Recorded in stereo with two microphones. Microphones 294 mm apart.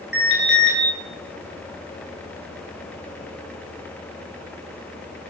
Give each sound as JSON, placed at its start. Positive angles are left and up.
{"t": 0.1, "sound": "an alarm", "side_deg": 40, "distance_m": 6.5}